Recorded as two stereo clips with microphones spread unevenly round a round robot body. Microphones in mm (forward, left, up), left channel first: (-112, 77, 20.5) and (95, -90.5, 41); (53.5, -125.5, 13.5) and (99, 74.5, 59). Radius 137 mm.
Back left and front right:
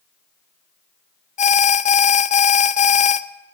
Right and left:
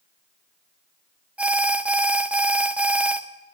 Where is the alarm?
175° left, 0.6 m.